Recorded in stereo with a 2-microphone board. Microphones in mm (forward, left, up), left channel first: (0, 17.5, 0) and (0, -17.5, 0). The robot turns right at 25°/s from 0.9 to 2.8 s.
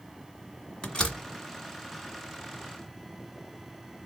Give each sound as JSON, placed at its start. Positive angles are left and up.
{"t": 0.8, "sound": "a door slam", "side_deg": 25, "distance_m": 1.4}